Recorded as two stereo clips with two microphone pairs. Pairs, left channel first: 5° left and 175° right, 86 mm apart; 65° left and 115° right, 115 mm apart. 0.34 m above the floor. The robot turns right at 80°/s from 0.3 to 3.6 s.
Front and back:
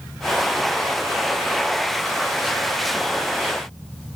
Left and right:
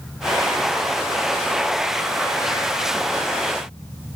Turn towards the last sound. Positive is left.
No sound to turn to.